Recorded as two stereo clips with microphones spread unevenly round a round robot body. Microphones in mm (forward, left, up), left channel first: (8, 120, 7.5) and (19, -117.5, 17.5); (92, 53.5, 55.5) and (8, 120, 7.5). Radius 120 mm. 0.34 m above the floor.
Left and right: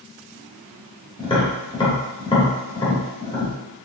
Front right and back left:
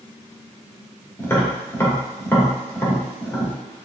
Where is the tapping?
60° left, 1.1 m.